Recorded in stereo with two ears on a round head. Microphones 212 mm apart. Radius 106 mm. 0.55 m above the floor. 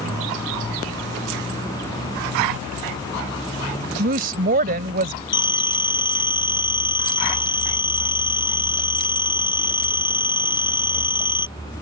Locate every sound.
4.0 s a woman speaking: 40° right (ahead or behind)
5.3 s a phone ringing: 20° left (ahead or behind)